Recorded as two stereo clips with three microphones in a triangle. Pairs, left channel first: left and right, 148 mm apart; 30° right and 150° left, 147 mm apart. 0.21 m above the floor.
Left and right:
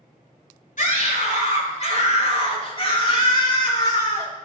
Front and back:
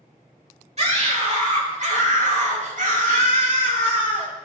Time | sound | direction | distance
0.8 | a scream | 110° left | 3.5 m